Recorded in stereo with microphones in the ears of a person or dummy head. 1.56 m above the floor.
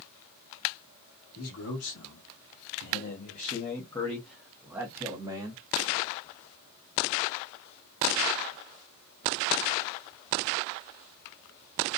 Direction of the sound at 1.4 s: 85° left.